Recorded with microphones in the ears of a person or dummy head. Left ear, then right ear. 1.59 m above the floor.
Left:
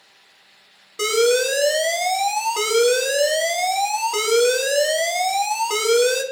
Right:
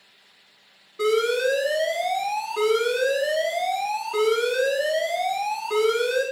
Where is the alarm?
70° left (ahead or behind), 2.5 m.